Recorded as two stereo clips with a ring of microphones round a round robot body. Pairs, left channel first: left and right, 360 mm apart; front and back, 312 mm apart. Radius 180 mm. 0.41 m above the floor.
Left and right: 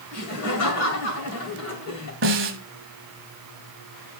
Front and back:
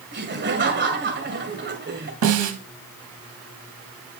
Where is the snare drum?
145° right, 1.6 m.